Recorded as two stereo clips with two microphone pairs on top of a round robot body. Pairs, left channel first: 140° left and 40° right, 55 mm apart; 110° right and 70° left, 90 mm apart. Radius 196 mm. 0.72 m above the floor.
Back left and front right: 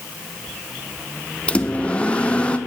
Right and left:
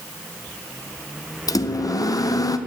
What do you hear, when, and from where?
1.5 s a microwave: 155° right, 0.8 m